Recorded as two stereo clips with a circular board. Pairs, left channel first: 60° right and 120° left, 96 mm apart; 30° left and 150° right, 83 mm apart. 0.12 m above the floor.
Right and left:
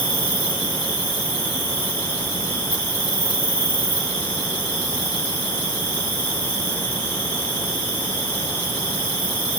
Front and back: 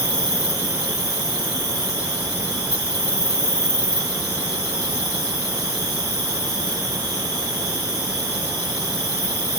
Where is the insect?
5° right, 2.5 m.